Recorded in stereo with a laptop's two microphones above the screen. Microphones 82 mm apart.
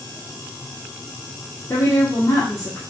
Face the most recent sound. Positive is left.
turn(degrees=35)  # may be behind; listen again after turning